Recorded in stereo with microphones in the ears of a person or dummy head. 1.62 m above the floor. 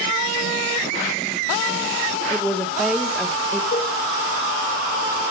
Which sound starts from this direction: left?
A cowbell, at 3.7 s.